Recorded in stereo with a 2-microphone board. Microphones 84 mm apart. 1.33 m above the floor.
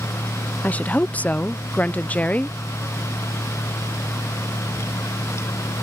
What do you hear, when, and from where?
0.6 s a woman speaking: 20° left (ahead or behind)